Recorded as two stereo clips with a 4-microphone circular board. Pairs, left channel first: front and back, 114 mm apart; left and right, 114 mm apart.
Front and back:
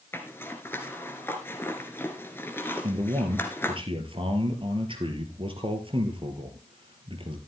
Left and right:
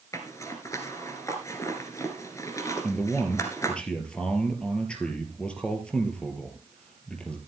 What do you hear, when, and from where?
0.1 s a zipper: 55° left, 1.6 m
2.8 s a man speaking: 170° left, 2.5 m